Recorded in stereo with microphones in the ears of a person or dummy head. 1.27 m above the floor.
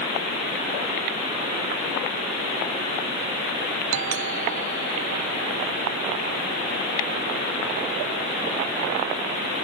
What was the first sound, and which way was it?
A doorbell, 80° right.